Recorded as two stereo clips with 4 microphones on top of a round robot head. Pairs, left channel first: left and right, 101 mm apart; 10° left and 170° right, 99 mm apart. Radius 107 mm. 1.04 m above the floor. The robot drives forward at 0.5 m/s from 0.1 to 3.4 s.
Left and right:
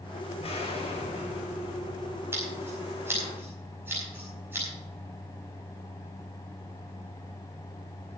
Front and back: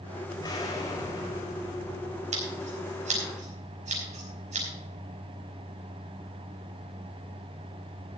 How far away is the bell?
I don't hear a bell.